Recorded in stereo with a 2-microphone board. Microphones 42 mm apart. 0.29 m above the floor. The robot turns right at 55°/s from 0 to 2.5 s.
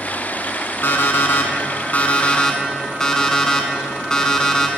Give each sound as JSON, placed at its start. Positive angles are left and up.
{"t": 0.8, "sound": "an alarm clock", "azimuth_deg": 70, "distance_m": 1.2}